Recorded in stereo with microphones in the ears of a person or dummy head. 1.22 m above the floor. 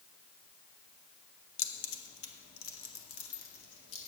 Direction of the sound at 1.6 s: 75° left (ahead or behind).